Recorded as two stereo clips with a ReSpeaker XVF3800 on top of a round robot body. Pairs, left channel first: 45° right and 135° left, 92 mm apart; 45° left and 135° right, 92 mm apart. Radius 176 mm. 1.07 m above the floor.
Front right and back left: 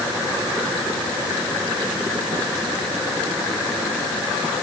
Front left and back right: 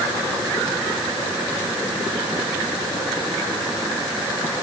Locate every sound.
Only background noise.